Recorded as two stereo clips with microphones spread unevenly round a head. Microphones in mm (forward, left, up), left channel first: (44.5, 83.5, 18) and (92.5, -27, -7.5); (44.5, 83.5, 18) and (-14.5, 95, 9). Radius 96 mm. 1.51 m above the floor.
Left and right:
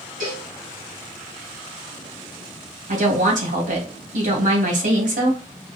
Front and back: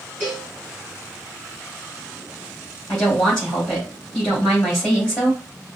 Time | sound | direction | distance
0.2 | a cowbell | 85° right | 3 m
2.9 | a woman speaking | 95° right | 2.5 m